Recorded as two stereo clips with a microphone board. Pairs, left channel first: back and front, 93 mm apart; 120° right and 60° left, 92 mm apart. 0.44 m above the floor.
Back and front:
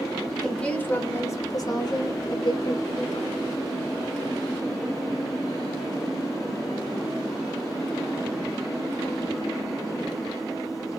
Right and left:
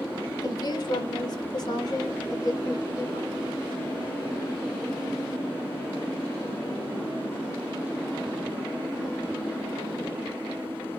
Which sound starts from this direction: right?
A woman speaking, at 0.4 s.